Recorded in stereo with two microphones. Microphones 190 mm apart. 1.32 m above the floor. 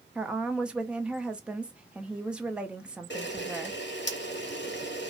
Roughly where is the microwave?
No microwave in this recording.